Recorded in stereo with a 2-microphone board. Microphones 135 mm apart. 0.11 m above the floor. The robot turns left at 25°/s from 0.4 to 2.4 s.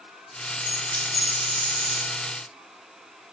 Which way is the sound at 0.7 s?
30° right.